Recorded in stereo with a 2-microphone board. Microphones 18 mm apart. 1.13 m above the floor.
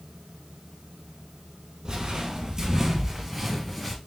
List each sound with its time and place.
1.9 s footsteps: 45° right (ahead or behind), 2.0 m; by 4.0 s 10° left (ahead or behind), 1.3 m